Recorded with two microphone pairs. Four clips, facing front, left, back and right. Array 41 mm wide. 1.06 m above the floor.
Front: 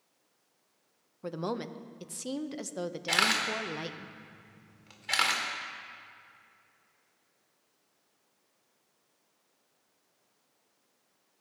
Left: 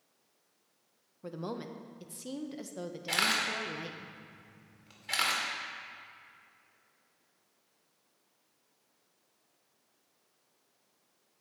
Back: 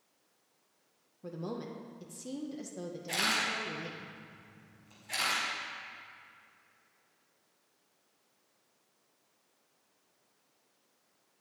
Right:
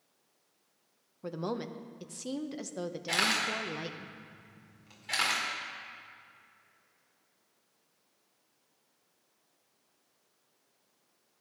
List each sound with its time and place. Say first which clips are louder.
1.2 s a woman speaking: right 3 dB, front 5 dB; 20° right, 0.7 m
3.1 s a camera shutter: even, front 4 dB; 10° left, 2 m